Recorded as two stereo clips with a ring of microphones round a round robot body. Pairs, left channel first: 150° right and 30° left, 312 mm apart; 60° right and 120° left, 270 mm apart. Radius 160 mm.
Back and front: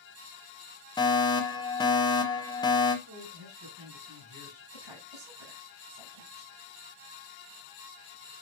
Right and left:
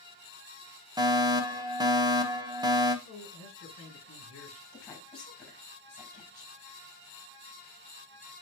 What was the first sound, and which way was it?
A fire alarm, 160° left.